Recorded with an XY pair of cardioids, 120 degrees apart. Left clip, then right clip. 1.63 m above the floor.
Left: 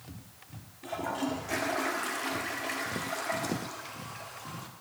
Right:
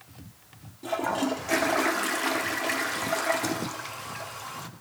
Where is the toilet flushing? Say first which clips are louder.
Right 6 dB; 40° right, 0.9 m.